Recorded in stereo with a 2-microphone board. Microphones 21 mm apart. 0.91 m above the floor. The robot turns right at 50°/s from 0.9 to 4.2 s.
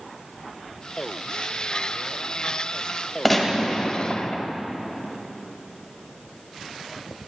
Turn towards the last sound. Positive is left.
turn(degrees=50)